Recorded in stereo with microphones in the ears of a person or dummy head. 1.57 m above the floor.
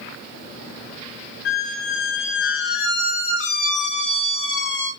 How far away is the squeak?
About 1.0 m.